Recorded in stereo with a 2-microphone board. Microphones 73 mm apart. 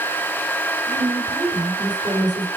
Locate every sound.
0.8 s a woman speaking: 80° right, 6.5 m